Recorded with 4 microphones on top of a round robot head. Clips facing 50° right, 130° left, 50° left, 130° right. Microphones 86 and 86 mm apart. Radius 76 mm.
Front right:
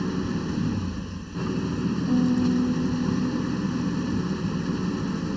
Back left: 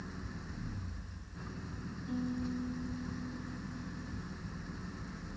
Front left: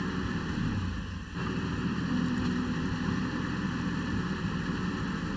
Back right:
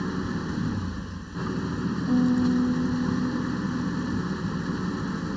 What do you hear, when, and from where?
0.0 s an engine running: 60° right
2.1 s a piano: 90° right